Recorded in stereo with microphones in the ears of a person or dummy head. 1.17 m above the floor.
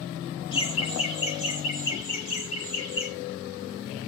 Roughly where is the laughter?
Left.